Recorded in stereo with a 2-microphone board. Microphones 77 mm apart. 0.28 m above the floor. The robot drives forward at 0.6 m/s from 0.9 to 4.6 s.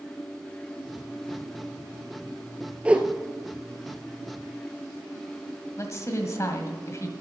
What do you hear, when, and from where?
2.9 s a whoosh: 15° right (ahead or behind), 1.0 m
5.8 s a woman speaking: 40° left (ahead or behind), 1.6 m